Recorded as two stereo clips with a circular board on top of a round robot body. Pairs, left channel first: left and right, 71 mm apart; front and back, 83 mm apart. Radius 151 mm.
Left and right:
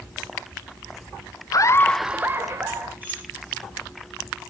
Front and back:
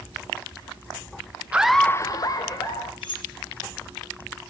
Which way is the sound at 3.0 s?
25° right.